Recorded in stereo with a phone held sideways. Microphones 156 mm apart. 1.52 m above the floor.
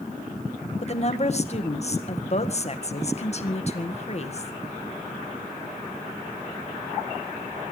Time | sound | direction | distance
0.8 | a woman speaking | 45° left (ahead or behind) | 1.8 m